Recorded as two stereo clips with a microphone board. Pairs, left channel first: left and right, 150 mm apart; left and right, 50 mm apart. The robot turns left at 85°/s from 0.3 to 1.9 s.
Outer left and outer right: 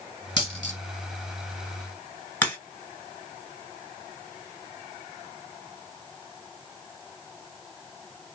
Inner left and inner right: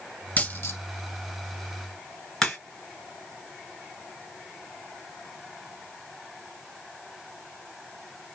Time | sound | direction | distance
0.4 | a dropped coin | 30° left (ahead or behind) | 1.2 m
2.4 | a crack | 10° left (ahead or behind) | 1.7 m